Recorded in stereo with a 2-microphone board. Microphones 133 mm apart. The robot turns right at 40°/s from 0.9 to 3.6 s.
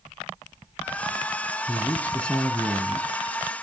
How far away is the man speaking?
About 1.3 m.